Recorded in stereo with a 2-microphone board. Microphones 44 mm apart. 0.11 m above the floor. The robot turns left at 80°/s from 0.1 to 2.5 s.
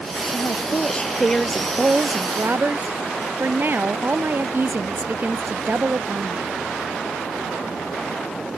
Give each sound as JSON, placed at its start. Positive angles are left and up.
{"t": 0.3, "sound": "a woman speaking", "azimuth_deg": 85}